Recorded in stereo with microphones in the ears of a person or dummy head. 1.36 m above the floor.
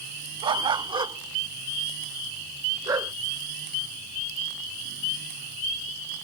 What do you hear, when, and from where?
0.4 s a dog barking: 25° right (ahead or behind); by 3.1 s 20° right (ahead or behind)